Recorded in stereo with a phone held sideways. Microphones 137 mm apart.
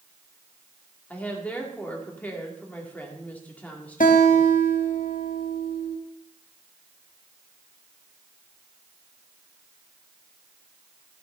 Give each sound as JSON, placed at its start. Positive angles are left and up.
{"t": 1.1, "sound": "a woman speaking", "side_deg": 10, "distance_m": 2.0}
{"t": 4.0, "sound": "a guitar", "side_deg": 75, "distance_m": 1.2}